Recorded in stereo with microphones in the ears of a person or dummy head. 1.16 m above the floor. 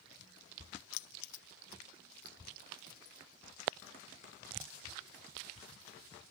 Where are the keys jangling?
55° left (ahead or behind), 0.6 m; by 5.5 s 45° left (ahead or behind), 5.5 m.